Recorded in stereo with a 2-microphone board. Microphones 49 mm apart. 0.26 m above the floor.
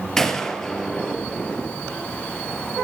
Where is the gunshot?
10° left (ahead or behind), 3 m.